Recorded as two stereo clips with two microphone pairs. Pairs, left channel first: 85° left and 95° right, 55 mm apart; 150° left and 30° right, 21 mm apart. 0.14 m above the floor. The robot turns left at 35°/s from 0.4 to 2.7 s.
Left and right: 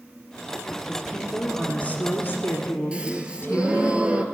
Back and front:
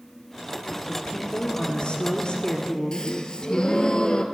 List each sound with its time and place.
0.9 s a woman speaking: 170° left, 1.6 m; by 3.9 s 105° left, 1.6 m
2.9 s a gasp: 165° right, 0.8 m